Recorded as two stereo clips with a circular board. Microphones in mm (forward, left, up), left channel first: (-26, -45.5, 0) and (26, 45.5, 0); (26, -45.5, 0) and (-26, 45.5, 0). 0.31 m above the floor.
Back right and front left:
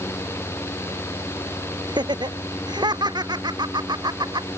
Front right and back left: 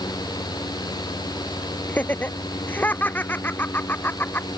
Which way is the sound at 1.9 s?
15° left.